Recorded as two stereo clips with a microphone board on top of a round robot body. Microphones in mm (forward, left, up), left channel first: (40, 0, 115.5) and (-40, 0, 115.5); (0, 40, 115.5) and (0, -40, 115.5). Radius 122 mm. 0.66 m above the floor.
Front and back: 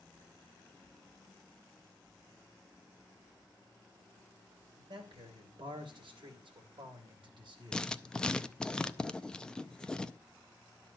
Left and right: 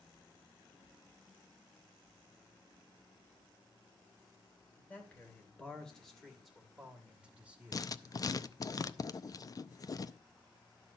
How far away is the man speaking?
About 3 m.